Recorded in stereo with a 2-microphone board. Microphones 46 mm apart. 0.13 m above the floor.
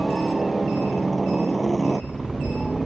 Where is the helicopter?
5° left (ahead or behind).